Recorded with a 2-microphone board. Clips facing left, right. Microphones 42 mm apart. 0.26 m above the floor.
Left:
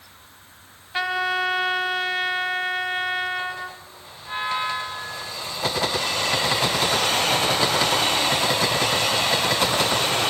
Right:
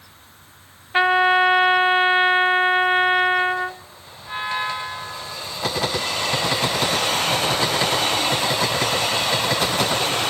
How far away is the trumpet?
About 0.9 m.